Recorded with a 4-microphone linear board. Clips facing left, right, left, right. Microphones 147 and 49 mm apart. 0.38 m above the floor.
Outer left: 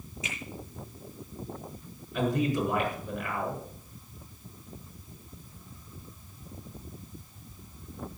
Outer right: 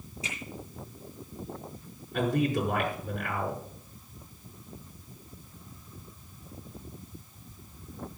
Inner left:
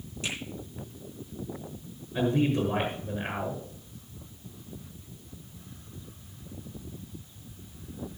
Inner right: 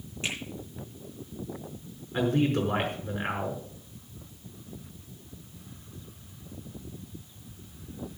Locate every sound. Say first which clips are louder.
0.2 s a finger snap: even, inner right 1 dB; 35° right (ahead or behind), 9 m
2.1 s a man speaking: even, even; 55° right (ahead or behind), 6 m